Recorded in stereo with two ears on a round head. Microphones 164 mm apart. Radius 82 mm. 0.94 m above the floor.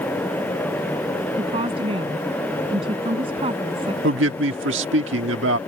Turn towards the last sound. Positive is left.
turn(degrees=-80)